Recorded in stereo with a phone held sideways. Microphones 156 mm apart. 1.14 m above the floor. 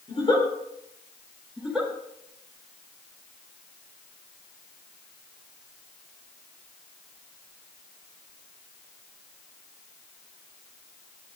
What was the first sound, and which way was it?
A giggle, 35° left (ahead or behind).